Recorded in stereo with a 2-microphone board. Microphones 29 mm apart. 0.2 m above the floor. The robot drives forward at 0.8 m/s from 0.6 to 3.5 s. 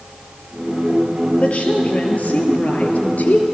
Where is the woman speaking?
45° left (ahead or behind), 3.5 m; by 3.4 s 65° left (ahead or behind), 3 m.